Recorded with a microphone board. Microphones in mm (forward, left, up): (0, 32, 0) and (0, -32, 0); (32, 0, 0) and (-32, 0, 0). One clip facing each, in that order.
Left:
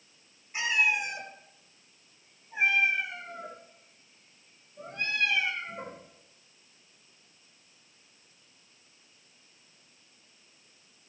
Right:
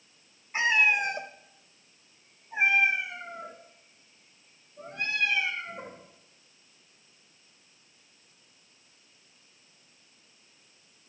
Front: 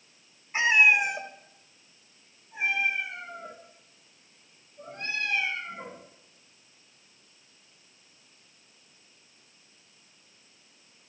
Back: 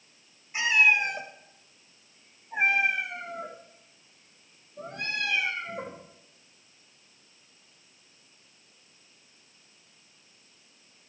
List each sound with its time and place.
0.5 s a cat meowing: 50° right, 1.5 m; by 6.0 s 175° right, 5.5 m